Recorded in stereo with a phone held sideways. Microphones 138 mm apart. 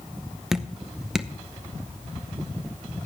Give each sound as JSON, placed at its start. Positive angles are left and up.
{"t": 0.5, "sound": "dripping", "side_deg": -5, "distance_m": 0.7}